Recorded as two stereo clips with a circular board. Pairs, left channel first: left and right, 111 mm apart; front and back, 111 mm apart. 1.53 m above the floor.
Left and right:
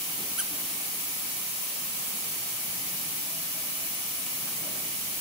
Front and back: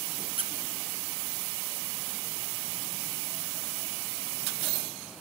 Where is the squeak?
175° right, 0.7 m.